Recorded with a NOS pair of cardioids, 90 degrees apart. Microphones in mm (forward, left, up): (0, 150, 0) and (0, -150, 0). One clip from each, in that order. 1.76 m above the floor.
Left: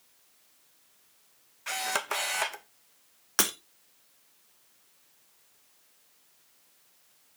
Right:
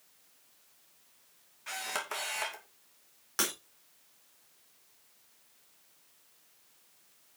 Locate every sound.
1.7 s a camera shutter: 40° left, 2 m
3.4 s breaking glass: 50° left, 3.5 m